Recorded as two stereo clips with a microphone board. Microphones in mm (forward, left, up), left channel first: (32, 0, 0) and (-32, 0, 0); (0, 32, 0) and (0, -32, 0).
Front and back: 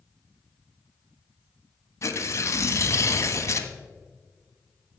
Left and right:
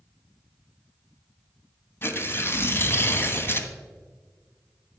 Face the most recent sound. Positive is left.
turn(degrees=40)